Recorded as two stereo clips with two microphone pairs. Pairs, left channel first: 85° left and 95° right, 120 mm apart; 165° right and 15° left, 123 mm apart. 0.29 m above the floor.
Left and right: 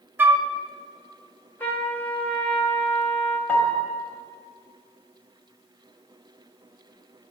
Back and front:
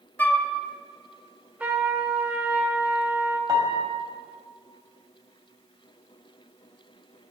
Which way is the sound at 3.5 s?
20° left.